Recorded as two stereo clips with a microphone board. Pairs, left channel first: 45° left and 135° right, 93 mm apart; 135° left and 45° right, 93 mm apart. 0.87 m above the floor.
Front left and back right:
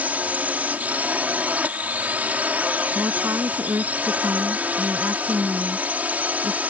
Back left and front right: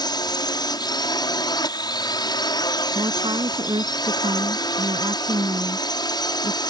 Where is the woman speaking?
75° right.